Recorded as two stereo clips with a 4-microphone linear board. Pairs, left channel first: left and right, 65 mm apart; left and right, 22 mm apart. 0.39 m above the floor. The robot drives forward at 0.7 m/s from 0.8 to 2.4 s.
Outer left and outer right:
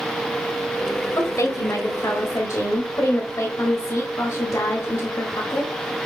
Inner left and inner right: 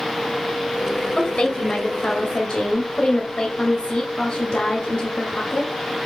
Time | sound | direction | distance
1.2 | a woman speaking | 50° left (ahead or behind) | 1.6 m